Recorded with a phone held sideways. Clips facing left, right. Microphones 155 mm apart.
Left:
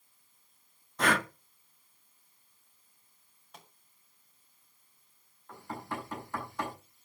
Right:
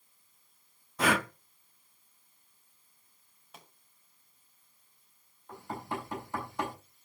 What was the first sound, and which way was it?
Breathing, 5° right (ahead or behind).